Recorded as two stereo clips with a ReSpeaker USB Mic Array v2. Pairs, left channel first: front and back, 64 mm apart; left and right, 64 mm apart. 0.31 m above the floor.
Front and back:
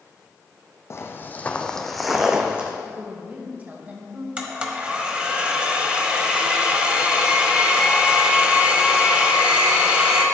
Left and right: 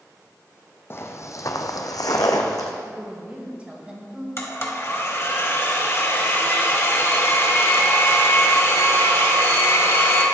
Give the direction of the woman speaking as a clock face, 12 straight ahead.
5 o'clock.